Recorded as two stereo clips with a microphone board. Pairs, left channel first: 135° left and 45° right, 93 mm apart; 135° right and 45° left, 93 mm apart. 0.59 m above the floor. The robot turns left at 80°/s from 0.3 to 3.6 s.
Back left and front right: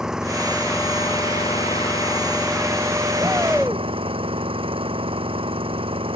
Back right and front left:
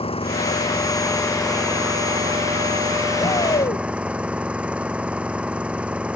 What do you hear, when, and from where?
0.0 s an engine running: 130° right; by 6.2 s 30° right
3.2 s a shout: 105° right; by 3.9 s 140° right